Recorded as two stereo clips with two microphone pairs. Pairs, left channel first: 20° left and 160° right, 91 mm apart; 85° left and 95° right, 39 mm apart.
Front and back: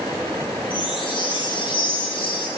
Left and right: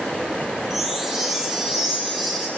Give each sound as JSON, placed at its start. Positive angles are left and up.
{"t": 0.7, "sound": "a chime", "azimuth_deg": -15, "distance_m": 8.0}